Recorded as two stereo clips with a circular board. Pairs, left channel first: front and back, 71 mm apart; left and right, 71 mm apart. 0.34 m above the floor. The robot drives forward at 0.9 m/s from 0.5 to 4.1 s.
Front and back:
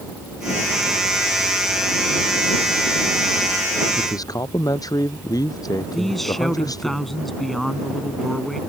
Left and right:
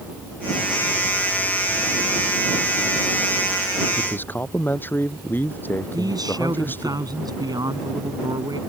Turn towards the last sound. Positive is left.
turn(degrees=-85)